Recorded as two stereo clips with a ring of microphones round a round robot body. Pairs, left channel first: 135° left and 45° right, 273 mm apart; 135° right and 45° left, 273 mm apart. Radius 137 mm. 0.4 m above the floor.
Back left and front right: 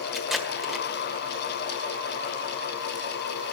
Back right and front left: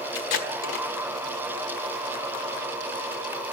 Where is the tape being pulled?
135° right, 1.7 m.